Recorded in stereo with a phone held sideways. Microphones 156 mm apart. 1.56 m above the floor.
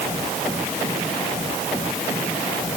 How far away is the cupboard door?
I don't hear a cupboard door.